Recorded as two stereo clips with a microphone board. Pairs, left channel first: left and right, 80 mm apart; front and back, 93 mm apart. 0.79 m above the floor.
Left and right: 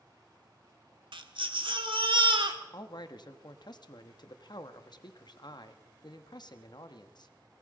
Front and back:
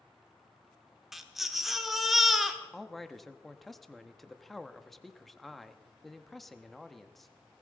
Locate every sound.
1.1 s a baby crying: 90° right, 1.3 m
2.7 s a man speaking: 90° left, 0.9 m